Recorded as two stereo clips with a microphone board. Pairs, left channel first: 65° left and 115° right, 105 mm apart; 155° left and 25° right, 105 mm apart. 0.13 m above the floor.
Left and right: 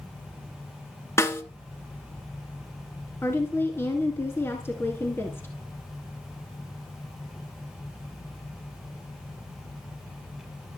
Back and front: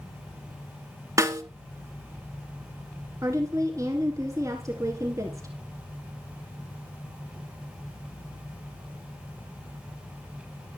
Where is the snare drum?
15° left, 1.6 m.